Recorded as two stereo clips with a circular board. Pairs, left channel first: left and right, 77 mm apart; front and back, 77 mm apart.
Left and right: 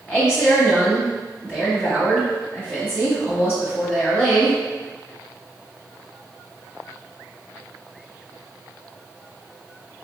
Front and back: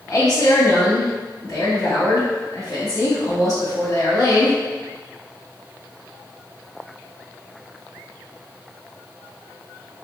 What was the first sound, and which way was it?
A woman speaking, 20° left.